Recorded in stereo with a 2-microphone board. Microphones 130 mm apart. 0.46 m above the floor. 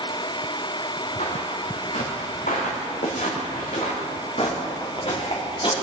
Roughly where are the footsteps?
Left.